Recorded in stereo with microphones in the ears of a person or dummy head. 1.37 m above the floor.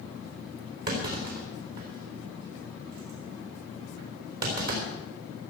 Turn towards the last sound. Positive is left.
turn(degrees=-50)  # may be behind; listen again after turning